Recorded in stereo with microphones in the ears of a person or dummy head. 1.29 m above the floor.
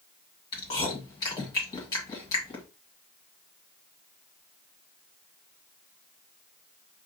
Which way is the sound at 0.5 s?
25° left (ahead or behind).